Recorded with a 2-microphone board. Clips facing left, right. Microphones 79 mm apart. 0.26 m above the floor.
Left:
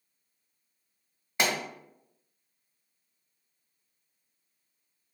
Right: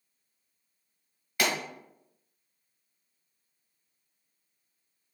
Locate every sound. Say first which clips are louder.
1.4 s a pop: even; 25° left (ahead or behind), 1.2 m